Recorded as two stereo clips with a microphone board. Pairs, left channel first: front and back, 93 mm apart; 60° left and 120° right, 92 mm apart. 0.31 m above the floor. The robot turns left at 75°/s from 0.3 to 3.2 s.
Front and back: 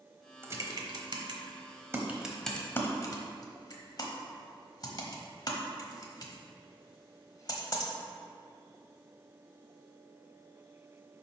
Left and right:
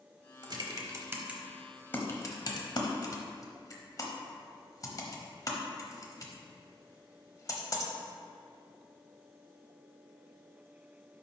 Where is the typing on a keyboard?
125° right, 1.0 m; by 7.9 s 25° left, 1.0 m.